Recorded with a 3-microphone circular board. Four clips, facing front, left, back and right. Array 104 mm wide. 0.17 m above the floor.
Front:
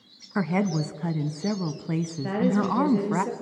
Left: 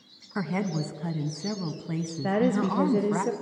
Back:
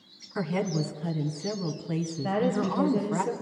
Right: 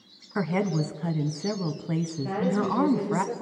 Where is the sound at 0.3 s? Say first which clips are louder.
Right 3 dB, front 3 dB; 15° right, 1.3 m.